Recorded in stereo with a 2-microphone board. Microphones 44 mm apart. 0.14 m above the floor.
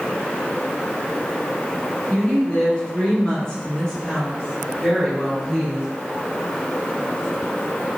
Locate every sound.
2.1 s a woman speaking: 25° left (ahead or behind), 1.4 m; by 5.9 s 10° right (ahead or behind), 1.9 m